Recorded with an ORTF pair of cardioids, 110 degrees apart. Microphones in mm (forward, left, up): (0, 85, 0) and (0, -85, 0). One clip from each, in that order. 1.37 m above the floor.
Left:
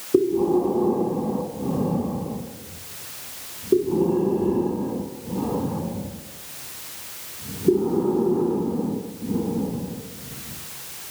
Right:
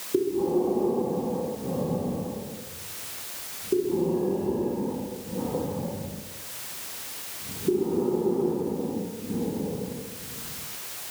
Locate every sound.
0.1 s breathing: 40° left, 6.5 m